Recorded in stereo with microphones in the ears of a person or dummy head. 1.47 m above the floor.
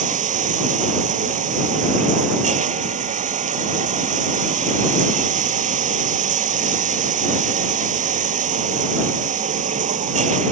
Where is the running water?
40° right (ahead or behind).